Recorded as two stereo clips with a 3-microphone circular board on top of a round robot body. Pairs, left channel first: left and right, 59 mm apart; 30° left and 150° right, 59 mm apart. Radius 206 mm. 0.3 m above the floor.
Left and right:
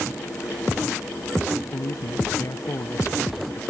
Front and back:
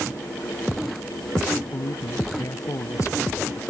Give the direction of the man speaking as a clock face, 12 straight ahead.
10 o'clock.